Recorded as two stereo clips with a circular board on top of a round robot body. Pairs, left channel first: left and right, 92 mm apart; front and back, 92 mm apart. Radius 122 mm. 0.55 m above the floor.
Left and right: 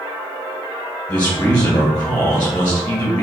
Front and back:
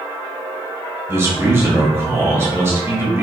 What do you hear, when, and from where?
1.1 s a man speaking: 150° left, 1.4 m